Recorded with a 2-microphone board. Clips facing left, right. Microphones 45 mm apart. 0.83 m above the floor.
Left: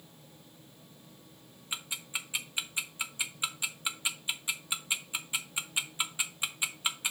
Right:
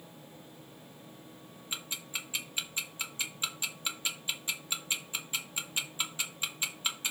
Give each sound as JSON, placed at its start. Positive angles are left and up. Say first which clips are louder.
{"t": 1.7, "sound": "ticking", "louder": "left 1 dB", "side_deg": 15, "distance_m": 1.1}